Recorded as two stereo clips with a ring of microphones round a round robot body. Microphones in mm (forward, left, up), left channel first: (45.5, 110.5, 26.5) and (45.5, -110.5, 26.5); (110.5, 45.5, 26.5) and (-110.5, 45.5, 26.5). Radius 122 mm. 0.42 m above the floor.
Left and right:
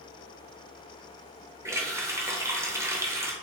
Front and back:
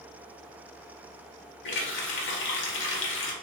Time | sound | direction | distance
1.6 | a running tap | 15° right | 0.9 m